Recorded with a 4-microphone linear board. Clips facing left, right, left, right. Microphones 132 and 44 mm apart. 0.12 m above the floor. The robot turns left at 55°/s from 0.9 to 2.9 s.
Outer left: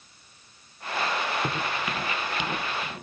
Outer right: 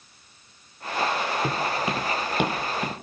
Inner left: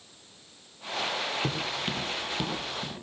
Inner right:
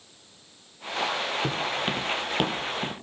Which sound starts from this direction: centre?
Footsteps, at 1.4 s.